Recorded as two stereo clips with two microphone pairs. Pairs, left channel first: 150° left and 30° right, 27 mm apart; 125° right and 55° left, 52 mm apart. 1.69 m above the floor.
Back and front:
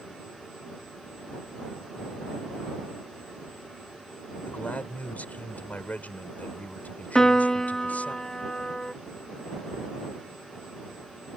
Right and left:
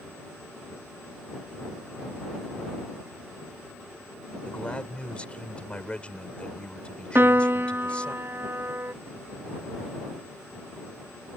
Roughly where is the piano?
Left.